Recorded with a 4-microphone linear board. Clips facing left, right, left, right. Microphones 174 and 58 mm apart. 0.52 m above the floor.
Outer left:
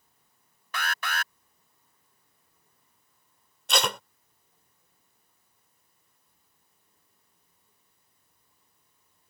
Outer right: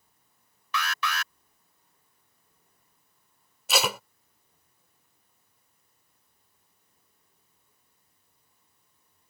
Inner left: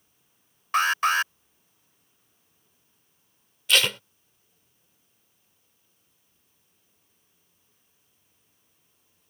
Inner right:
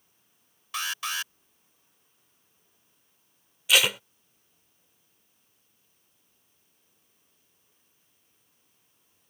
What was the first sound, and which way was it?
An alarm, 50° left (ahead or behind).